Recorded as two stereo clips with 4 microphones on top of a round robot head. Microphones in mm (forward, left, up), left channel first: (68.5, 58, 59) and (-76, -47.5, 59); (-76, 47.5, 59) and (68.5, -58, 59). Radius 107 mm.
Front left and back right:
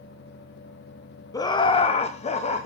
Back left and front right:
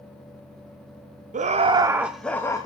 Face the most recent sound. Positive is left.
turn(degrees=80)